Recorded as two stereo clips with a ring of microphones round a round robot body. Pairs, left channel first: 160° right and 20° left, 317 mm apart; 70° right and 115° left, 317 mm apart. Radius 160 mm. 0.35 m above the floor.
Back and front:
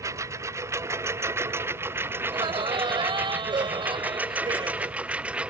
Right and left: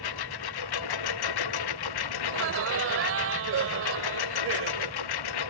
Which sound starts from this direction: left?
Laughter, at 2.2 s.